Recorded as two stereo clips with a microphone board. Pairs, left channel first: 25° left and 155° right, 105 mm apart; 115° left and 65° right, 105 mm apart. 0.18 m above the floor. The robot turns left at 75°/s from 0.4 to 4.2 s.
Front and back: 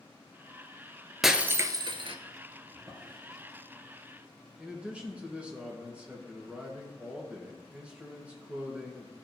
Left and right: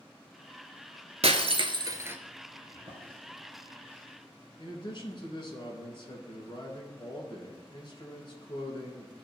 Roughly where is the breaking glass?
Right.